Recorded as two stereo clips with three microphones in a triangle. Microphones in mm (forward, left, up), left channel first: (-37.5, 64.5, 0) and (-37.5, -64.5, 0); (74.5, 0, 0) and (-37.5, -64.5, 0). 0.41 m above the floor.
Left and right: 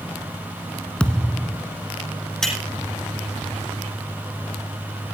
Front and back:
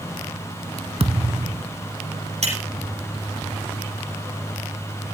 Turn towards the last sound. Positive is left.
turn(degrees=175)